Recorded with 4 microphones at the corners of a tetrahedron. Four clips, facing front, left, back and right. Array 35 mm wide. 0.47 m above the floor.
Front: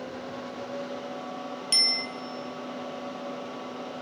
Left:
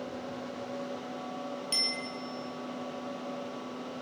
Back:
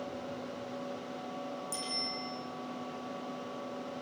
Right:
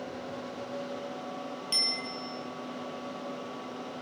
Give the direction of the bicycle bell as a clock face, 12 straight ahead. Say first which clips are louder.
Right 2 dB, front 14 dB; 12 o'clock.